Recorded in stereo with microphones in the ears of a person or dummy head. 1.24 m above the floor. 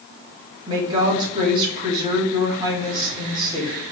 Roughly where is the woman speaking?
Right.